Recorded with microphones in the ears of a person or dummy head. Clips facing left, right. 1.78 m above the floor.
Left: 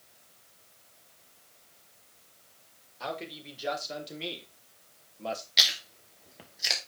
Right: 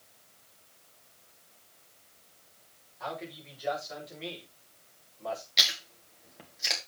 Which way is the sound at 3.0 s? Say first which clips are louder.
Left 2 dB; 45° left (ahead or behind).